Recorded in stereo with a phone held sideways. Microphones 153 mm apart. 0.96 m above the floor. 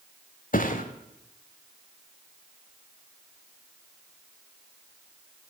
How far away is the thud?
About 1.3 m.